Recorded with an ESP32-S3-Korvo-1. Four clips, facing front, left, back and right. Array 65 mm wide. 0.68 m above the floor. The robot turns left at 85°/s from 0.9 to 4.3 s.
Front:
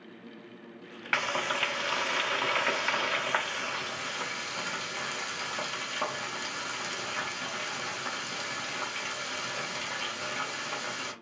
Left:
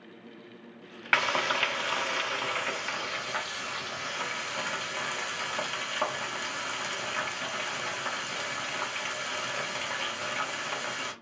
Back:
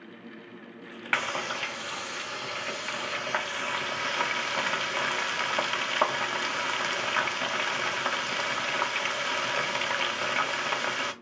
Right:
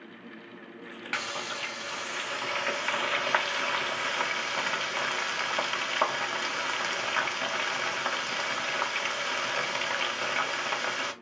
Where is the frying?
110° left, 0.6 m; by 11.1 s 160° right, 0.6 m.